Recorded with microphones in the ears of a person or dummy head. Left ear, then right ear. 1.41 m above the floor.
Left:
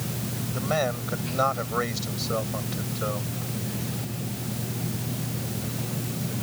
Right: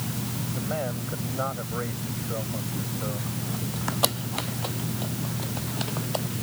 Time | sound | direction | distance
0.5 | a man speaking | 70° left (ahead or behind) | ?